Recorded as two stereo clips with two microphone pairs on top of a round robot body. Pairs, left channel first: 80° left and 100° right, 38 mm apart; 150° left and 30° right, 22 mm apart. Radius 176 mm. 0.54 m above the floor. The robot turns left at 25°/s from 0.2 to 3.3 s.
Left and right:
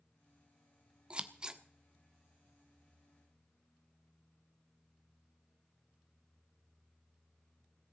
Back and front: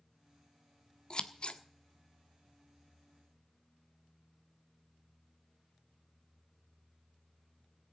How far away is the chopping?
No chopping in this recording.